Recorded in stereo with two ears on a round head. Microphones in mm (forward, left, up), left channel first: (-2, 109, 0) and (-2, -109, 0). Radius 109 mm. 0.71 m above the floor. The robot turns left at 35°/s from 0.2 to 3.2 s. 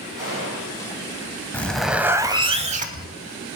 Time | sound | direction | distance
0.2 | a gunshot | 15° right (ahead or behind) | 9.5 m
1.5 | a zipper | 10° left | 0.8 m